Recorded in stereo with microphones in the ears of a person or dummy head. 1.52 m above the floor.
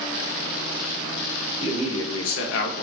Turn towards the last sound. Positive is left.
turn(degrees=45)  # may be behind; listen again after turning